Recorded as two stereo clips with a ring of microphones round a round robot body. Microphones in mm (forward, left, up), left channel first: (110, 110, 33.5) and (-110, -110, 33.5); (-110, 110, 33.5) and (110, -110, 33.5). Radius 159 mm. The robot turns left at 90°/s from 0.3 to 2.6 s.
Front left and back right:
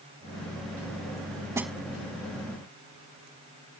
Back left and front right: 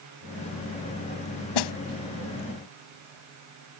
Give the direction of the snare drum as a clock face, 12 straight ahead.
7 o'clock.